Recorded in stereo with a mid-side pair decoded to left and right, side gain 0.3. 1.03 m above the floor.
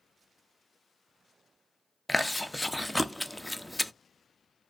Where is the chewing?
10° left, 0.5 m.